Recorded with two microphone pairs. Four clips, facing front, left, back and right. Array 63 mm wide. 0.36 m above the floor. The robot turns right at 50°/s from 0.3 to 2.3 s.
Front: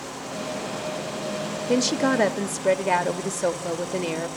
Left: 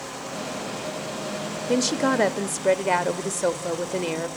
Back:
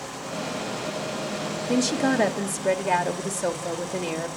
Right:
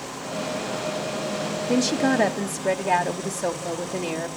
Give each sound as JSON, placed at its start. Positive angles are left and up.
{"t": 1.7, "sound": "a woman speaking", "azimuth_deg": 40, "distance_m": 0.8}